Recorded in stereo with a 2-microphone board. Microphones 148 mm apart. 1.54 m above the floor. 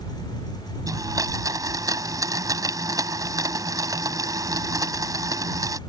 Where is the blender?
25° right (ahead or behind).